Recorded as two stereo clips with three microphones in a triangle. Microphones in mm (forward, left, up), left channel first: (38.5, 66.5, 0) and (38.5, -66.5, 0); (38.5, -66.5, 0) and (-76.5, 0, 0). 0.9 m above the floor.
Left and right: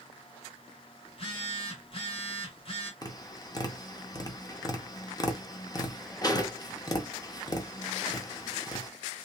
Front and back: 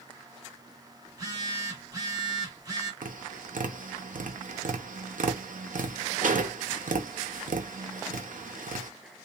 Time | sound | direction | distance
1.1 | a phone buzzing | 100° left | 1.2 m
3.0 | tapping | 150° left | 0.6 m